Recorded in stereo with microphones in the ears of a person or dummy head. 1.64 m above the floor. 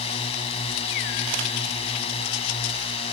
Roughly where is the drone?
Left.